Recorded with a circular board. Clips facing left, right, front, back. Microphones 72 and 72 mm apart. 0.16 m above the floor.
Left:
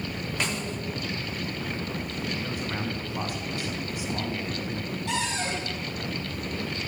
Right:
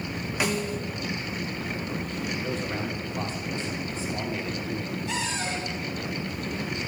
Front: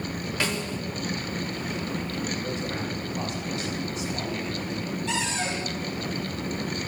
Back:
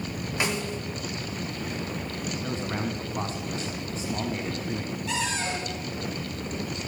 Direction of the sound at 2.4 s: 155° left.